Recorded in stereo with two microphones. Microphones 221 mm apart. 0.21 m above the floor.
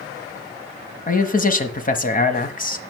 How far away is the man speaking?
About 1.4 m.